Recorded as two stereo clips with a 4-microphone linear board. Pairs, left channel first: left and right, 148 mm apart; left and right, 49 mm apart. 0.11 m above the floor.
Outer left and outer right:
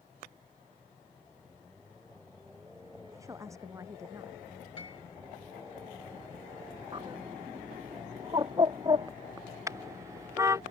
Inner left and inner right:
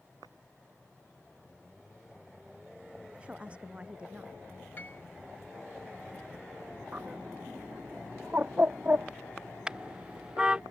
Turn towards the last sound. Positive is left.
turn(degrees=-20)  # may be behind; listen again after turning